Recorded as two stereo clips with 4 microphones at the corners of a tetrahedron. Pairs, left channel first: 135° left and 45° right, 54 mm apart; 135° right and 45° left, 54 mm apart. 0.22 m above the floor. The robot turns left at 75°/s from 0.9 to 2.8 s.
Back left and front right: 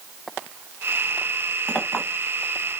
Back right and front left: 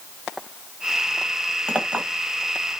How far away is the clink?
About 0.8 m.